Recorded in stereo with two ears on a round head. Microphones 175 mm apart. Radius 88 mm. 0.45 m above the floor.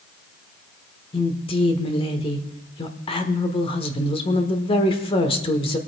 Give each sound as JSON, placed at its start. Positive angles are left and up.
{"t": 1.1, "sound": "a woman speaking", "side_deg": 30, "distance_m": 1.2}